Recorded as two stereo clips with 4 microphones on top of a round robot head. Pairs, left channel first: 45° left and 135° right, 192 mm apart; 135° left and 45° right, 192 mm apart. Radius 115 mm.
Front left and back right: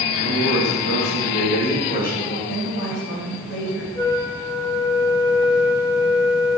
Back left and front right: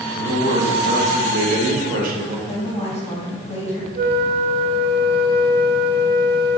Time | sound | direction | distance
0.1 | a man speaking | 15° left | 3 m
2.5 | a woman speaking | 70° left | 4 m
4.0 | a flute | 25° right | 1.3 m